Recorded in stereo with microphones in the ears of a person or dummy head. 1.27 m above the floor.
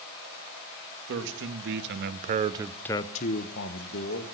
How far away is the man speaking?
About 1.9 m.